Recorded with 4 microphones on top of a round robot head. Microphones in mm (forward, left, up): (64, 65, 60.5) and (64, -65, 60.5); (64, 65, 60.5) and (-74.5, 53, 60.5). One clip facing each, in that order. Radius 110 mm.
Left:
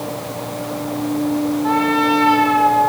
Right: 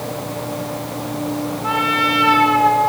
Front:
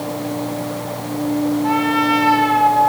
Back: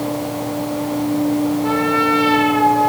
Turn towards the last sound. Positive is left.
turn(degrees=-110)